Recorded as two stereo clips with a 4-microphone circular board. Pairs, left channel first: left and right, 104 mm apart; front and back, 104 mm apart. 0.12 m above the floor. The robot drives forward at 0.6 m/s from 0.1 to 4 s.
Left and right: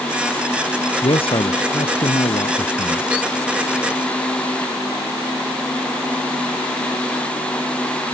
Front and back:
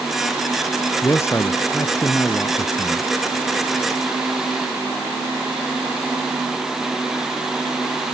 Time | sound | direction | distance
1.0 | a man speaking | 60° left | ?